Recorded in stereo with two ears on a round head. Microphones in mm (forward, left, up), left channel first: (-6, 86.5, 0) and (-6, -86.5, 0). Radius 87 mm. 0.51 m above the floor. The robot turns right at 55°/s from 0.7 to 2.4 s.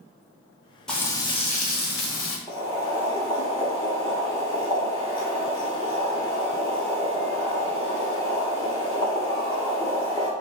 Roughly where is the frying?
Ahead.